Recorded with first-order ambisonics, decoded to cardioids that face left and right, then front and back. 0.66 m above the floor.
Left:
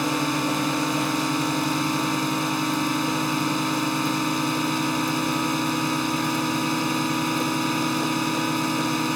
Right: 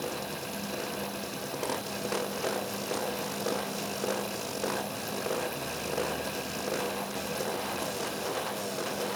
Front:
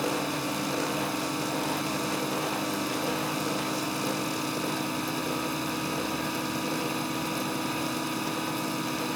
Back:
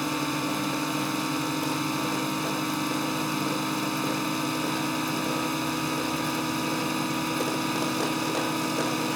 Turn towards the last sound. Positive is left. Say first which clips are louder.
# left 11 dB, back 1 dB
turn(degrees=100)